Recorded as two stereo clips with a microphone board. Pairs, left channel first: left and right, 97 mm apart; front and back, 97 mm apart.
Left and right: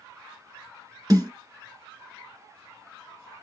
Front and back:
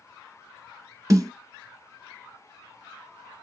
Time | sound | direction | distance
1.1 | a snare drum | 130° right | 1.2 m